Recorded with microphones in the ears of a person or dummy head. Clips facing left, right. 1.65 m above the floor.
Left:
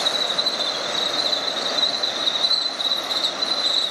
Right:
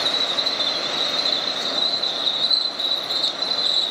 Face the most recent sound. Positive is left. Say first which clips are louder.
# left 1 dB
turn(degrees=-5)  # may be behind; listen again after turning